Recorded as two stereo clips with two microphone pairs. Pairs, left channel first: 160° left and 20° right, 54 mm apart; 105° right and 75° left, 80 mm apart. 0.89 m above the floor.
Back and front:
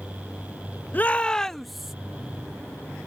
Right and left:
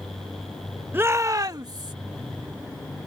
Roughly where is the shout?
Behind left.